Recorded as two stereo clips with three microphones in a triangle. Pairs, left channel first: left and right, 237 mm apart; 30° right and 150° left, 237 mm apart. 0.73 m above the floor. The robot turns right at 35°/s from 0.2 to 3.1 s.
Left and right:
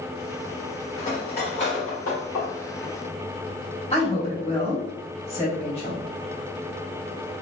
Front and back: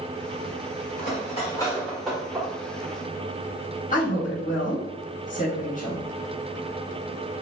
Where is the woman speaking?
25° left, 1.6 m.